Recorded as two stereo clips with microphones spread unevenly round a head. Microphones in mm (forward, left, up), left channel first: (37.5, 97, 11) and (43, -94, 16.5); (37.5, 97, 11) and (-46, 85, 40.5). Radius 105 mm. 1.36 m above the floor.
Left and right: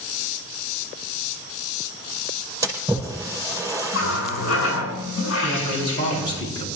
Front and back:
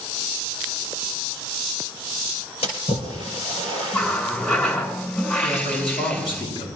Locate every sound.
2.6 s a splash: 10° right, 5 m
3.9 s a running tap: 80° left, 8.5 m
5.4 s a man speaking: 25° left, 9 m